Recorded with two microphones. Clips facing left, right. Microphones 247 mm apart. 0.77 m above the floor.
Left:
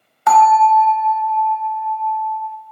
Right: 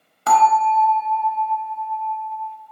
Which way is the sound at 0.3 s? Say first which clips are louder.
Left 4 dB; 35° right (ahead or behind).